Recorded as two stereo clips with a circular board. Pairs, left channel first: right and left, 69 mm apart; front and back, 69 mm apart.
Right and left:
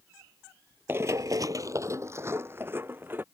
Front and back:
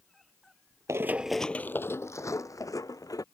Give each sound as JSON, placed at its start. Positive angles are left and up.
{"t": 0.9, "sound": "running footsteps", "azimuth_deg": 140}